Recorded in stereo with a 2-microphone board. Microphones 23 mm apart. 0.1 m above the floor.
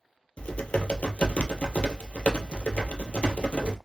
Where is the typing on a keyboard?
60° left (ahead or behind), 0.6 m.